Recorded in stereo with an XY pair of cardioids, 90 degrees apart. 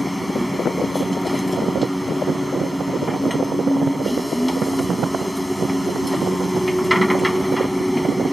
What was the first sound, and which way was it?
A machine running, 5° left.